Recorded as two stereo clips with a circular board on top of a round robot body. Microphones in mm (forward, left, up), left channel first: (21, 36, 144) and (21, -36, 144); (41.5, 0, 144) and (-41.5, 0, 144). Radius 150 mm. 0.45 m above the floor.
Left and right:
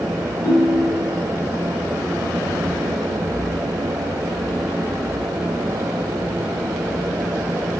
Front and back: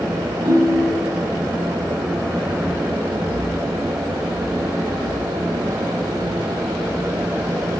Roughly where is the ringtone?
Behind.